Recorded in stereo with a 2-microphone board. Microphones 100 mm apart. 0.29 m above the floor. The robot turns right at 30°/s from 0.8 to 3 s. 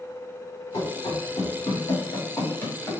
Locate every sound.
0.7 s running footsteps: 70° left (ahead or behind), 1.7 m; by 2.9 s 15° left (ahead or behind), 2.5 m